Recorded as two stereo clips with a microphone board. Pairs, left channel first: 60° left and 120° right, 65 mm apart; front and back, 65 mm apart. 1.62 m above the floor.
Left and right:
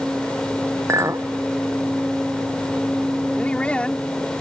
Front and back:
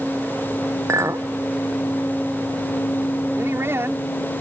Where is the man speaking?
135° left.